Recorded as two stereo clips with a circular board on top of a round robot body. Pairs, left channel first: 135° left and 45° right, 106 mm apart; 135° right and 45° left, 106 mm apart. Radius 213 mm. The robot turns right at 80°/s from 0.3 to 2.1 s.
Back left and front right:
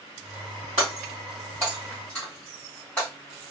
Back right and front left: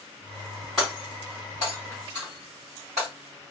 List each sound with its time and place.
0.8 s breaking glass: 45° right, 1.2 m; by 3.1 s 60° left, 1.2 m